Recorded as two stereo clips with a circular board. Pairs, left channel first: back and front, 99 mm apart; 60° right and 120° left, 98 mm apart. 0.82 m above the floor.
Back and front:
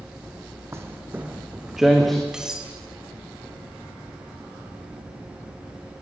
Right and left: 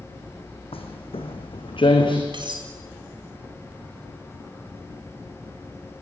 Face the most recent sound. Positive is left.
turn(degrees=85)